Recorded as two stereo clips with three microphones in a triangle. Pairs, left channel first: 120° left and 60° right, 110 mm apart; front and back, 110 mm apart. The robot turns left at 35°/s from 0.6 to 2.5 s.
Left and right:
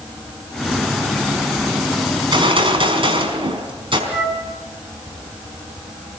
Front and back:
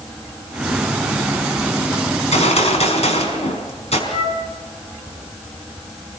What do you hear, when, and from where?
2.1 s a gunshot: 5° right, 4.5 m; by 4.0 s 20° right, 4.5 m
4.1 s a flute: 25° left, 5.5 m